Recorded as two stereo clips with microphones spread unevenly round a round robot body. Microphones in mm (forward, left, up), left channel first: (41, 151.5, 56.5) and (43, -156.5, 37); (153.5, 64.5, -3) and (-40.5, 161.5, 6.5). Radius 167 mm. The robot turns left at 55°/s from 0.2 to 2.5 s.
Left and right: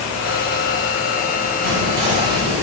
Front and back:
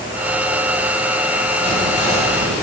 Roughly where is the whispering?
Behind right.